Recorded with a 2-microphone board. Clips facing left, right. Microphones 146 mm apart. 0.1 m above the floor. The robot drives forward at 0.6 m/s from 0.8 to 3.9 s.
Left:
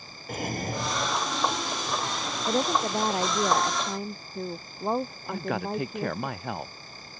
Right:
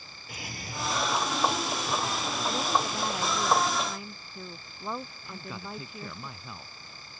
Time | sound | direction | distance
0.3 | a drawer | 55° left (ahead or behind) | ?
2.5 | a woman speaking | 45° left (ahead or behind) | ?
5.3 | a man speaking | 70° left (ahead or behind) | ?